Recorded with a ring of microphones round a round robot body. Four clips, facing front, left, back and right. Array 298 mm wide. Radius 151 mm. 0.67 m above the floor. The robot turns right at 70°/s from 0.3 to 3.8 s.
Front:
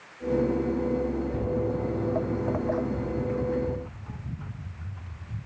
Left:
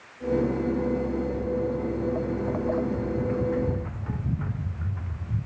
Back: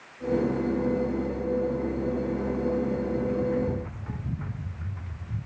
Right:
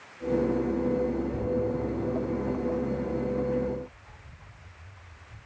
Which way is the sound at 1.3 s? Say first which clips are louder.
Left 1 dB, back 1 dB; 15° right.